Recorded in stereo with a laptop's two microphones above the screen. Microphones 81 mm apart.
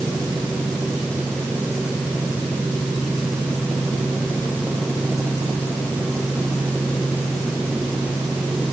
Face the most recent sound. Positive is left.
No sound to turn to.